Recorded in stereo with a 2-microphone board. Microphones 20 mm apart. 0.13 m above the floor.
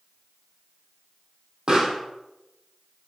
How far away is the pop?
About 2.5 m.